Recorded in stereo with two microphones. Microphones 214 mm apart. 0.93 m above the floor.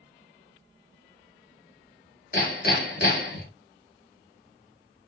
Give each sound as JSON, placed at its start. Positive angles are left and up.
{"t": 2.3, "sound": "hammering", "side_deg": 50, "distance_m": 1.6}